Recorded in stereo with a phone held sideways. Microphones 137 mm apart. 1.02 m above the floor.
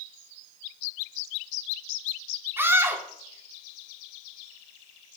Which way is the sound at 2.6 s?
15° right (ahead or behind).